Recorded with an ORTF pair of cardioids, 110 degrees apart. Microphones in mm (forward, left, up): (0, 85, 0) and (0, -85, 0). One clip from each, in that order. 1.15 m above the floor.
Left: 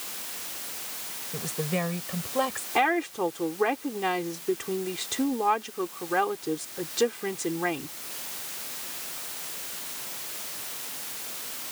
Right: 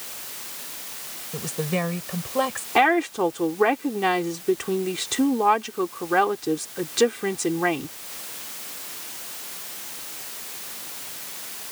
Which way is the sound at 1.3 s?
15° right.